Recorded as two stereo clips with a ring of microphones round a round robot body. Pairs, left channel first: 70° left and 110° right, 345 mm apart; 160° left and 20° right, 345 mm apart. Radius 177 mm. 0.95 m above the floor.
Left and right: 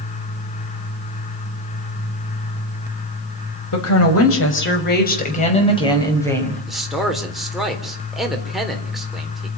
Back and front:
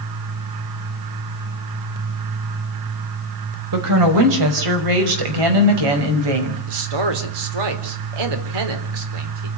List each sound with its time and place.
3.7 s a woman speaking: 25° left, 5.5 m; by 6.6 s 20° right, 6 m
6.7 s a man speaking: 25° right, 3.5 m